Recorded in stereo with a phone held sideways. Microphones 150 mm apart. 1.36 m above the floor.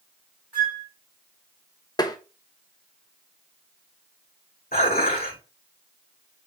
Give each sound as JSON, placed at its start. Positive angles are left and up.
{"t": 0.5, "sound": "a flute", "side_deg": -5, "distance_m": 4.0}
{"t": 2.0, "sound": "tapping", "side_deg": 25, "distance_m": 0.7}
{"t": 4.7, "sound": "dishes clattering", "side_deg": 75, "distance_m": 2.0}